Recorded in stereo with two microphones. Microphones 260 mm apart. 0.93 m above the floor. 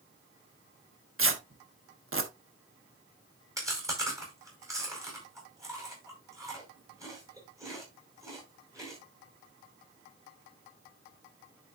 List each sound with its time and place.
1.2 s tearing paper: 55° right (ahead or behind), 1.2 m
3.6 s chewing: 10° right (ahead or behind), 5 m